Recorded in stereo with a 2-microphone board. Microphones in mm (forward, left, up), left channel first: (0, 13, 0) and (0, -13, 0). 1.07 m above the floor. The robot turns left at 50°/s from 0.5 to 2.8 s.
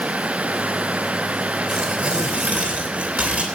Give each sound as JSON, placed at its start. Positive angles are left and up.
{"t": 1.7, "sound": "tearing paper", "azimuth_deg": -25, "distance_m": 3.5}